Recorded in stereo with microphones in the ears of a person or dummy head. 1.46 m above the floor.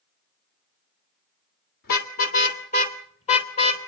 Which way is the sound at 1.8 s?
55° left (ahead or behind).